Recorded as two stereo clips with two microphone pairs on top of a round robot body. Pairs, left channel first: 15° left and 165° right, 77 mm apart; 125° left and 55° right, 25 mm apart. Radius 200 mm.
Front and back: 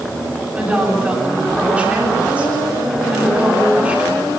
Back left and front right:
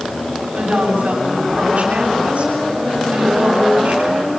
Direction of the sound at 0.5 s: 90° right.